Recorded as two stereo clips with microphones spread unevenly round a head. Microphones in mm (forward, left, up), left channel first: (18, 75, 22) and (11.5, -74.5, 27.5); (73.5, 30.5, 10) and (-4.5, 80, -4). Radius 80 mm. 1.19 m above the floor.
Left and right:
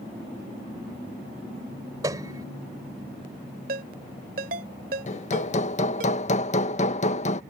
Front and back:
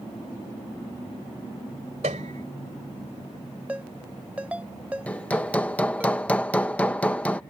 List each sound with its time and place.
2.0 s a piano: 160° right
3.7 s a ringtone: 130° right
5.1 s hammering: 45° left